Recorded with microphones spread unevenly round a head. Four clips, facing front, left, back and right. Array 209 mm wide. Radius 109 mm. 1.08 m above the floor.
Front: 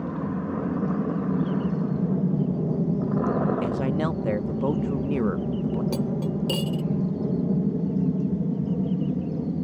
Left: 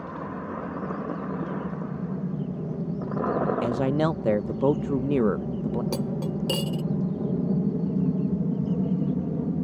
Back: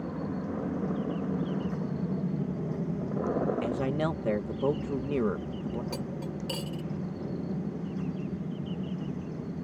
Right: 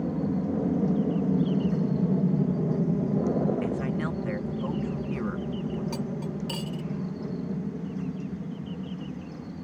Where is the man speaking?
105° left.